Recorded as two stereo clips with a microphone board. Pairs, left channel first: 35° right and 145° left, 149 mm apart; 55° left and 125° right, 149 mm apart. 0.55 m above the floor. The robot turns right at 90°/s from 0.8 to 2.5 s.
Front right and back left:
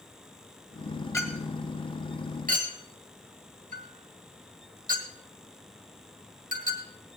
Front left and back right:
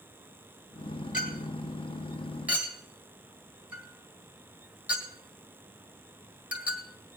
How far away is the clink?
About 1.7 m.